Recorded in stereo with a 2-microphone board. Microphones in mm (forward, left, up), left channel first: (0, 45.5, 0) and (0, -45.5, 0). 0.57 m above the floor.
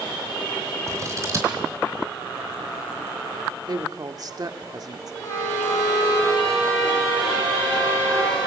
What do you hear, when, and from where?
0.9 s scissors: 35° right (ahead or behind), 4 m
3.7 s a woman speaking: 45° right (ahead or behind), 1.6 m
5.2 s a violin: 35° left (ahead or behind), 6.5 m